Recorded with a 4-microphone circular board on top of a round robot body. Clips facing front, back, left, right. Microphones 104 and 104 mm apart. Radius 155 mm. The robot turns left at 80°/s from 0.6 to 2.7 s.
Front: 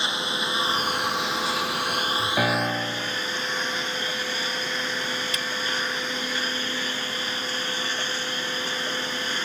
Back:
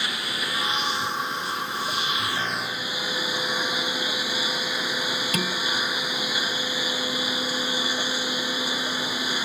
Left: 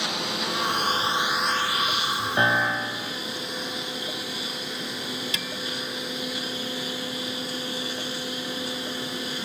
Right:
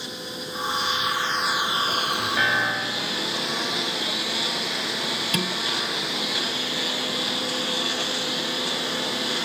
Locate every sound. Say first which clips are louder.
0.0 s a lawn mower: front 3 dB, left 5 dB; 65° left; by 9.4 s 100° right
2.4 s a piano: front 6 dB, left 4 dB; 30° left; by 3.2 s straight ahead
5.3 s dishes clattering: back 4 dB, right 7 dB; 135° right